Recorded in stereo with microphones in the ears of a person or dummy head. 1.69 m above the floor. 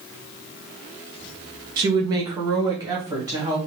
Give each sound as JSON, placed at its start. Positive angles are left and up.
{"t": 1.8, "sound": "a woman speaking", "side_deg": -25, "distance_m": 0.6}